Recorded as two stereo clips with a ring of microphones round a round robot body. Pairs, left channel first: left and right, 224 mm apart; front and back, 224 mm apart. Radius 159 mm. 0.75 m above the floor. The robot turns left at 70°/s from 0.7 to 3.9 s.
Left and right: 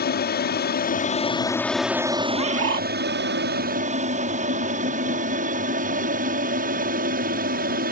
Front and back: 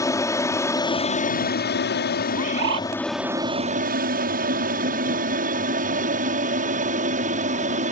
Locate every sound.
0.0 s an aircraft: 70° left; by 7.9 s 130° right
2.3 s a bird: 105° right; by 2.9 s 145° right